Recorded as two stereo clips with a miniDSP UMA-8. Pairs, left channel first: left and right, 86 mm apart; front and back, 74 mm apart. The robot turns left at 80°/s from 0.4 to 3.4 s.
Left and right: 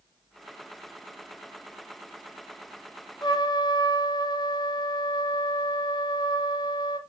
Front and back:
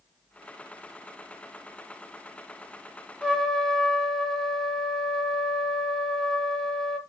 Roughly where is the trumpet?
Left.